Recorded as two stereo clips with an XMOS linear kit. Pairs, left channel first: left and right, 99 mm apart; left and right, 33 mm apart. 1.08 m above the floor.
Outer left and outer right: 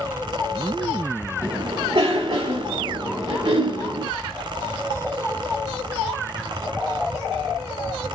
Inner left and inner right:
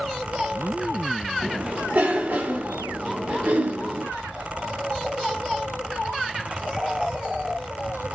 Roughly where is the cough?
Right.